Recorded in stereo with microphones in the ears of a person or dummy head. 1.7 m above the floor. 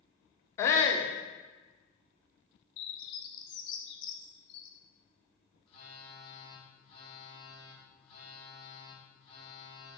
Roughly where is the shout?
Centre.